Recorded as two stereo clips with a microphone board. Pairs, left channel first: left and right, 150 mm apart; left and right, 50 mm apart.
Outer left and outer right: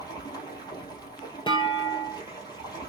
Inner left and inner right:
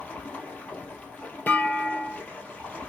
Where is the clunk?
35° left (ahead or behind), 0.6 m.